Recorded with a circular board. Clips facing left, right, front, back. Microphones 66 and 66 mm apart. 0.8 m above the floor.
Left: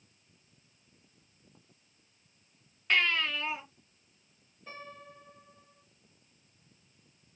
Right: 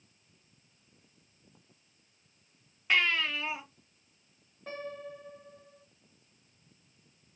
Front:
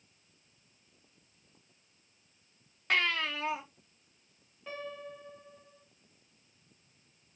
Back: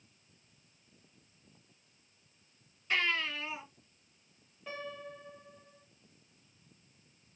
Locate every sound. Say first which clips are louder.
2.9 s a baby crying: even, front 2 dB; 5° right, 1.1 m
4.7 s a piano: right 7 dB, front 1 dB; 90° right, 1.3 m